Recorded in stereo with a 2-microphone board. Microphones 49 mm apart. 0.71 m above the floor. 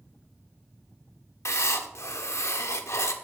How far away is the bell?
I don't hear a bell.